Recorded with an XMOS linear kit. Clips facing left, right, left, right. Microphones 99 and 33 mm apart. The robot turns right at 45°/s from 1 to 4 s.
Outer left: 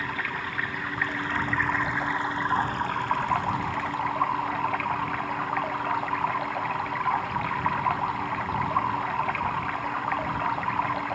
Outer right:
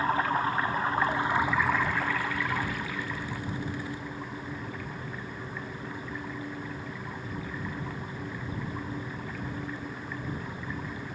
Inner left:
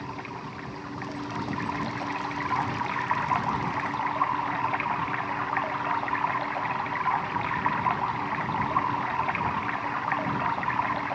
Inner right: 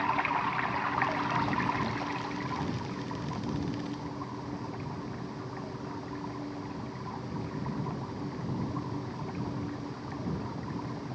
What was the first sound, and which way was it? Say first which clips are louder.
Running water: outer right 6 dB, inner right 8 dB; 35° right.